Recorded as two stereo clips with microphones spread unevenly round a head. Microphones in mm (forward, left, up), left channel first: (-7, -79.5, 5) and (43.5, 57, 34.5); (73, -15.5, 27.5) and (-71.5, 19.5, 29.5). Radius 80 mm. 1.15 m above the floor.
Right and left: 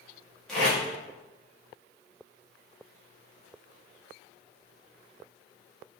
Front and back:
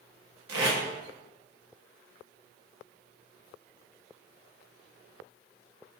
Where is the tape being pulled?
165° left, 1.3 m.